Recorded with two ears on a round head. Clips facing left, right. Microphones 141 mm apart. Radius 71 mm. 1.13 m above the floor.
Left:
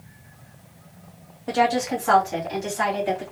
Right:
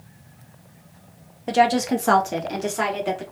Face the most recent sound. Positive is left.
turn(degrees=-70)  # may be behind; listen again after turning